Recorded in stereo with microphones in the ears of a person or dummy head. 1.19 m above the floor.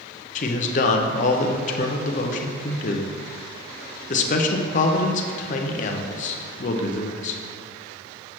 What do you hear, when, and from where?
0.3 s a man speaking: 40° left (ahead or behind), 0.6 m